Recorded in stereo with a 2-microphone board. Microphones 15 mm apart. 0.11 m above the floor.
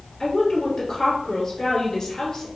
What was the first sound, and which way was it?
A woman speaking, 30° left (ahead or behind).